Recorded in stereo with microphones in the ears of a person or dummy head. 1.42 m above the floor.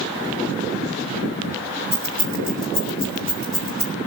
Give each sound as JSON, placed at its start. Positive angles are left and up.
{"t": 1.9, "sound": "keys jangling", "side_deg": -80, "distance_m": 5.0}